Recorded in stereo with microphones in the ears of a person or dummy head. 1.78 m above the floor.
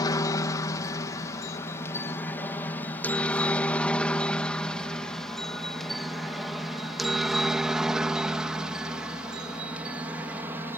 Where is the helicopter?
20° left (ahead or behind); by 10.8 s 10° right (ahead or behind).